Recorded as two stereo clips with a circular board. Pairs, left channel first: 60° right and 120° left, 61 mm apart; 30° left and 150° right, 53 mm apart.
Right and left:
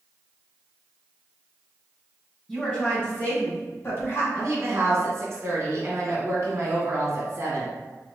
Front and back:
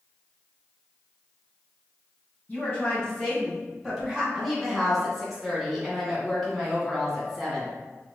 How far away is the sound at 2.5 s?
About 1.7 m.